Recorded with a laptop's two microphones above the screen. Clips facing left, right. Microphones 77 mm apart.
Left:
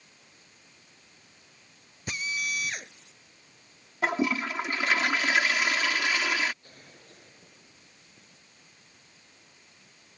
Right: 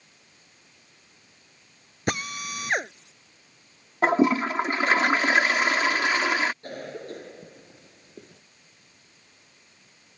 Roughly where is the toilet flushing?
Right.